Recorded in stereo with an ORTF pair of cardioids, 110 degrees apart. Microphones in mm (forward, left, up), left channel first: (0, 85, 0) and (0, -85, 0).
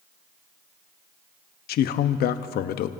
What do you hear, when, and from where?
1.7 s a man speaking: 70° left, 0.8 m